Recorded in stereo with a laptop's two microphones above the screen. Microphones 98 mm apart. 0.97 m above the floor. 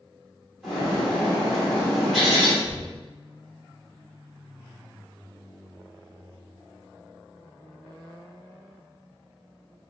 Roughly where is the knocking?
Right.